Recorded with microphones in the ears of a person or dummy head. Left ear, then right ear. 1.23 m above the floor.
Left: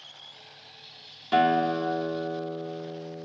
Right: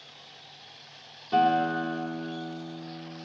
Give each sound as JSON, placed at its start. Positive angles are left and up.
{"t": 1.3, "sound": "a guitar", "side_deg": 60, "distance_m": 1.6}